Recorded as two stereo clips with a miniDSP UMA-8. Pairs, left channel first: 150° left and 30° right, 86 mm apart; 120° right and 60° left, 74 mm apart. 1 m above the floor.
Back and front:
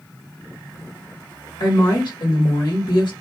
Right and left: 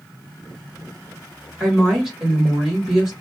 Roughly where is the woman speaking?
Behind left.